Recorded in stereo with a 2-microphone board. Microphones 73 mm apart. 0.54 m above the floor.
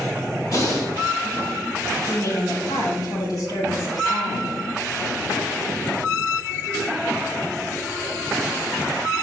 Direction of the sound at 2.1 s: 65° left (ahead or behind).